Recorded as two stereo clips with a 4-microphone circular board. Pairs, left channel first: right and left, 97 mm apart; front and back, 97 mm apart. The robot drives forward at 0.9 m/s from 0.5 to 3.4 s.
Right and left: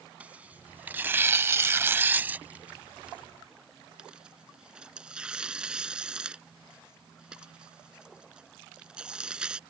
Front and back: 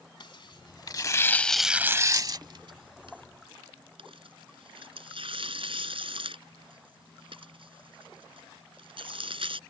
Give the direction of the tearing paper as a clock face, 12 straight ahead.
11 o'clock.